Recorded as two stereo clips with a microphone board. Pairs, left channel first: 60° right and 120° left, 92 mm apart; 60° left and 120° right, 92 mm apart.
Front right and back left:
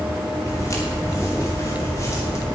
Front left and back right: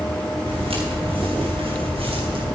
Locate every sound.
0.5 s footsteps: 120° right, 7.5 m